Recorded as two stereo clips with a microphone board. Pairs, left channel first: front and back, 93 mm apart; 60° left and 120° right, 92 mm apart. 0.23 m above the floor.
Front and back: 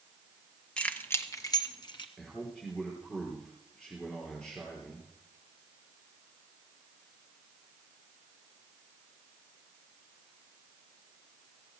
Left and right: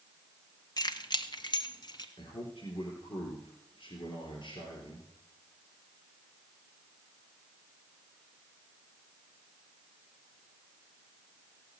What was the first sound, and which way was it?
Keys jangling, 75° left.